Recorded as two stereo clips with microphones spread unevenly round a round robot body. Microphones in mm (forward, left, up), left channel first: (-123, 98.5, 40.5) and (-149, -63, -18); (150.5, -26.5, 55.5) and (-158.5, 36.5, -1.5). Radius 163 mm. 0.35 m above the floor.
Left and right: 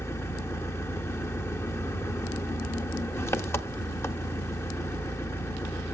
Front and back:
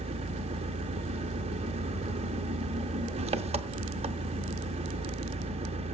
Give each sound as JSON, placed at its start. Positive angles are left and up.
{"t": 0.0, "sound": "an engine running", "azimuth_deg": 180, "distance_m": 0.7}